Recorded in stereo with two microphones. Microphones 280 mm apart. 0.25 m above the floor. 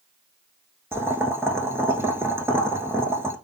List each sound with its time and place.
0.9 s boiling: 10° right (ahead or behind), 0.6 m